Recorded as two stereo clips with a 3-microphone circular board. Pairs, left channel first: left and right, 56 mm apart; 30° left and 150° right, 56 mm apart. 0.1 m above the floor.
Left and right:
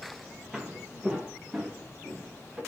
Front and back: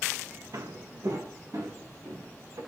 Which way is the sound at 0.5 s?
170° right.